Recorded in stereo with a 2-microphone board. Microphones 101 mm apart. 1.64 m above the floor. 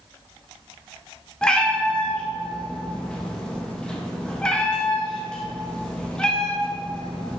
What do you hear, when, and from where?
1.4 s a cat meowing: 10° left (ahead or behind), 0.9 m